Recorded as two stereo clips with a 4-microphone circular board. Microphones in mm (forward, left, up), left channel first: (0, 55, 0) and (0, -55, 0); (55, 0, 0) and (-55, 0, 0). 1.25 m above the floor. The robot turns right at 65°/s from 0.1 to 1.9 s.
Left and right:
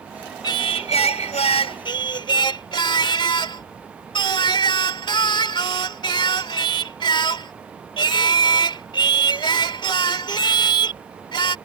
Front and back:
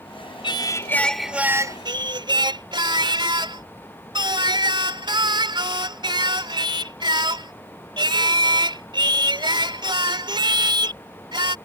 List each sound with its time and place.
0.4 s singing: 40° left; by 11.6 s 135° left